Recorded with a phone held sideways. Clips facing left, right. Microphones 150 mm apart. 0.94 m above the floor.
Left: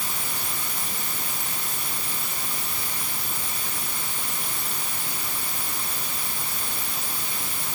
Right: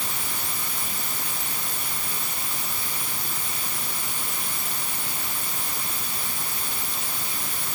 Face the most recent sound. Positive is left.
No sound to turn to.